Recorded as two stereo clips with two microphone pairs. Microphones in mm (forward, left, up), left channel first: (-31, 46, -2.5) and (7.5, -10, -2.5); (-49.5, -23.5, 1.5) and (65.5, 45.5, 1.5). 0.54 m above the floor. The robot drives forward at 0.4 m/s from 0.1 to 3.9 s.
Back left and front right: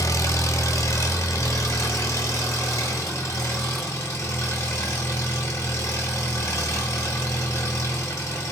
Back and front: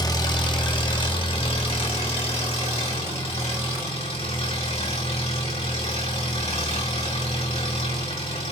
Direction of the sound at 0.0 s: 150° left.